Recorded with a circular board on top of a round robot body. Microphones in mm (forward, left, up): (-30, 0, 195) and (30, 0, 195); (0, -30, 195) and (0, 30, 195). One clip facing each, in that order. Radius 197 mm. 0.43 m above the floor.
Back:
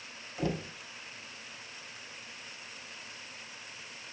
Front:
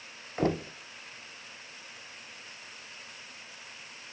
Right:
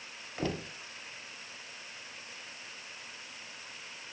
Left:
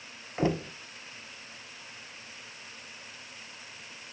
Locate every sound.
0.4 s knocking: 30° left, 1.3 m